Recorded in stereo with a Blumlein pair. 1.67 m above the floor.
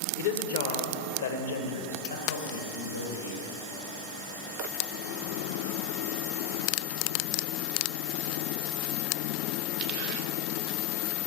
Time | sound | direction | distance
0.2 | a woman speaking | 55° left | 1.3 m